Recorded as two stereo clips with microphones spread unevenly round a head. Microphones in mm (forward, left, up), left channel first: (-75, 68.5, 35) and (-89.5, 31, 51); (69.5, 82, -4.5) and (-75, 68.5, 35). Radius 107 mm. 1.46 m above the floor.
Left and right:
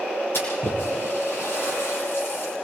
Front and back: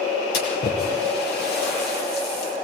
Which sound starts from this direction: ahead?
A splash, at 0.3 s.